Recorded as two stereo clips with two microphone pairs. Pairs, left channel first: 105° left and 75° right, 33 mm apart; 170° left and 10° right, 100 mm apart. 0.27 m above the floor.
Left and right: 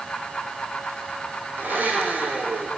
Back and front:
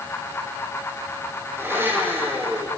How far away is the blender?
About 7.5 m.